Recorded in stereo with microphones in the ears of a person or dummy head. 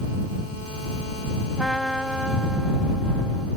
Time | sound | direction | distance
1.6 | a trumpet | 5° right (ahead or behind) | ?